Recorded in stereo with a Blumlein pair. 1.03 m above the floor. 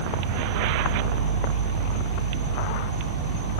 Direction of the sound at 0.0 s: 50° right.